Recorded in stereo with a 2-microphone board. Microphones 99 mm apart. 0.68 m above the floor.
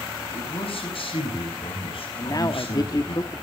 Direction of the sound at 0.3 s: 70° left (ahead or behind).